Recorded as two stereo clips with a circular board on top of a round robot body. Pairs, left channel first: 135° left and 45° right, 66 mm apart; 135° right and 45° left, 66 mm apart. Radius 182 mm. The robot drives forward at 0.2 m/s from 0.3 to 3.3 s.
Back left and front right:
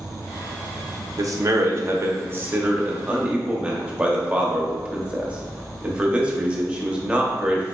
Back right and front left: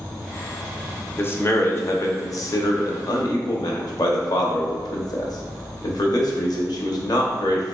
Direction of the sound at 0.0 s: 125° right.